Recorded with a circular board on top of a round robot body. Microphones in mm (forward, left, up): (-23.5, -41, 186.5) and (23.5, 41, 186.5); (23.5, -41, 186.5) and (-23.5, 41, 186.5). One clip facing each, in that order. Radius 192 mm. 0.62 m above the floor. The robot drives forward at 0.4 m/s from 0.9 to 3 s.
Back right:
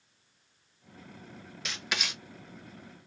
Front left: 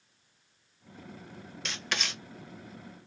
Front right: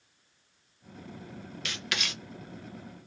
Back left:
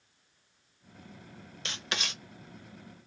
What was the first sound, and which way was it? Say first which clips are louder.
Writing: front left 1 dB, even; 155° left.